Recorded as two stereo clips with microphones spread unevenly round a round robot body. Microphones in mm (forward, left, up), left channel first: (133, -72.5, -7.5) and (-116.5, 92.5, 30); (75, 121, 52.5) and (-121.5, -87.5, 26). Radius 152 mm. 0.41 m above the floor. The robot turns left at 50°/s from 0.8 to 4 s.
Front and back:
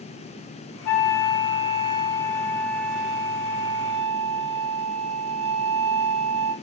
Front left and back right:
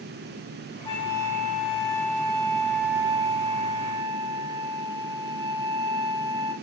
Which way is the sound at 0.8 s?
15° left.